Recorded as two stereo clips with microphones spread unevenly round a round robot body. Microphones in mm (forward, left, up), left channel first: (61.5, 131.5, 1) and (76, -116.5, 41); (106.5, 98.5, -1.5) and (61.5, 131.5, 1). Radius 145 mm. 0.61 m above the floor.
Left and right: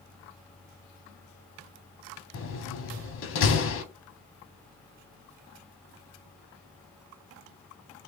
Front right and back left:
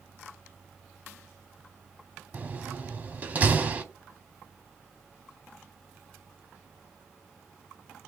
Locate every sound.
2.3 s a door slam: 85° left, 1.0 m